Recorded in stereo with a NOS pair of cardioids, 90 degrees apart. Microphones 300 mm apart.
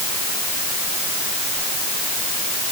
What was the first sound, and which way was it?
Only background noise.